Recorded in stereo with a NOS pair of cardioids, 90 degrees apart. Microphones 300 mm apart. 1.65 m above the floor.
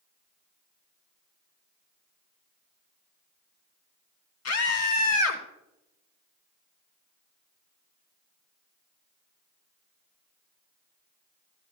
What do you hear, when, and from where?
4.5 s a scream: 50° left, 1.9 m